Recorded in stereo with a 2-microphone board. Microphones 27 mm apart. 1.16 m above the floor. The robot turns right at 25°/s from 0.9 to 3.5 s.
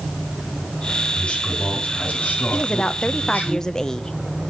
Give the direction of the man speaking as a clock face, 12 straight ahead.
10 o'clock.